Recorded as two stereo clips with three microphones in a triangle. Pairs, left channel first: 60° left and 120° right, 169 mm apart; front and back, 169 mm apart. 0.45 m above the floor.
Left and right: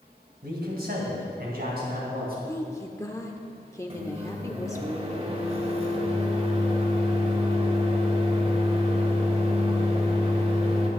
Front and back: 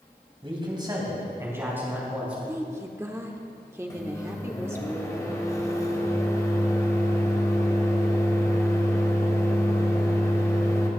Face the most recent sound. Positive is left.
turn(degrees=-70)